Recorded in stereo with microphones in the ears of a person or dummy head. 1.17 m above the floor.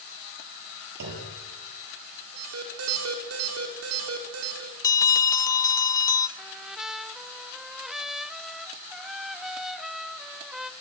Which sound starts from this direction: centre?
A trumpet, at 6.4 s.